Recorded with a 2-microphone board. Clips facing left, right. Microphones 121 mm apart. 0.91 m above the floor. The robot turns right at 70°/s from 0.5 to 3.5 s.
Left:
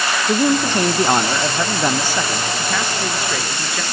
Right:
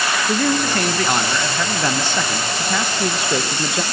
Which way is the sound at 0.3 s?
15° left (ahead or behind).